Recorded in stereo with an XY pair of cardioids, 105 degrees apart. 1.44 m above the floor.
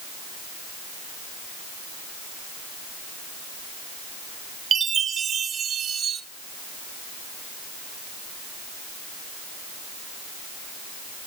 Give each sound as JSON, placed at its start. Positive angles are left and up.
{"t": 4.7, "sound": "a chime", "azimuth_deg": -50, "distance_m": 1.4}